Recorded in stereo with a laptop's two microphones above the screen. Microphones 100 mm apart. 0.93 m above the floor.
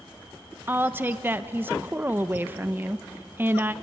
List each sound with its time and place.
0.7 s a woman speaking: 20° right (ahead or behind), 0.6 m